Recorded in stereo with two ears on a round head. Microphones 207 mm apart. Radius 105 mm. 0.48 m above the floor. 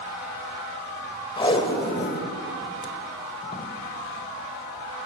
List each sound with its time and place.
1.4 s tape being pulled: 20° left (ahead or behind), 2.5 m